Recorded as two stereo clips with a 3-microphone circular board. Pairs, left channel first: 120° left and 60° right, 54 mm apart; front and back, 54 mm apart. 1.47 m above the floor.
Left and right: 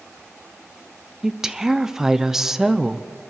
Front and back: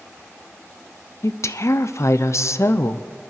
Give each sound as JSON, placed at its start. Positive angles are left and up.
{"t": 1.2, "sound": "a woman speaking", "azimuth_deg": 20, "distance_m": 0.6}